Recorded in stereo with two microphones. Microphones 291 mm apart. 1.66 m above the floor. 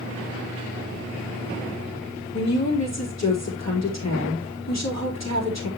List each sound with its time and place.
2.3 s a woman speaking: 60° left (ahead or behind), 3.5 m